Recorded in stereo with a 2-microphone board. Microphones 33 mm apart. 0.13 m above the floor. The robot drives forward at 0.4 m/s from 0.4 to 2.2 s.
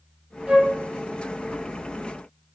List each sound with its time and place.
0.5 s a flute: 20° right (ahead or behind), 0.6 m; by 0.7 s 15° right (ahead or behind), 0.7 m